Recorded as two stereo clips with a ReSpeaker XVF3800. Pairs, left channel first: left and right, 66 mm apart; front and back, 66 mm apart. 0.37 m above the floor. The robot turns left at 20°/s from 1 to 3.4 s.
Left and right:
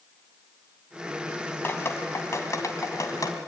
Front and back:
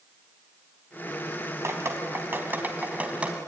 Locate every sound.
1.6 s dripping: 140° left, 2 m; by 3.4 s 105° left, 2 m